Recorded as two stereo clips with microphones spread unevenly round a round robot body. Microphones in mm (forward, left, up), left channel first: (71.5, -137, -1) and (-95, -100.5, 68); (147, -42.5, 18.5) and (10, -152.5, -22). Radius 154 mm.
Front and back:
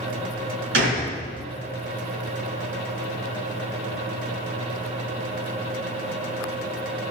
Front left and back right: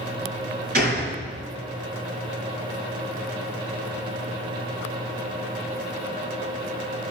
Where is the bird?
I don't hear a bird.